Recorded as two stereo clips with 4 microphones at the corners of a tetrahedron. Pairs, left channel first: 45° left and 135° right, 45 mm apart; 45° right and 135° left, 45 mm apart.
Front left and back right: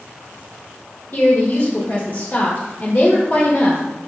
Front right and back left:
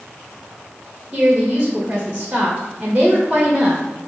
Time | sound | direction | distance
1.1 | a woman speaking | 70° left | 1.9 m